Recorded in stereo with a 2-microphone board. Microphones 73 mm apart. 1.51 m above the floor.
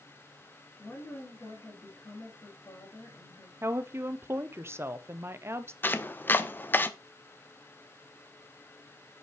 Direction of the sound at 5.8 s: 25° left (ahead or behind).